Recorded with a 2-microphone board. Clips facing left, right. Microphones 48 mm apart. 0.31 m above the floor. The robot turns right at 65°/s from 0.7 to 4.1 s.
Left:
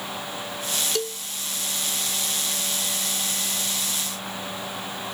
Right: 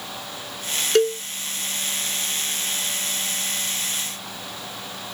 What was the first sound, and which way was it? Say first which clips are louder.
A cowbell: right 10 dB; 55° right (ahead or behind).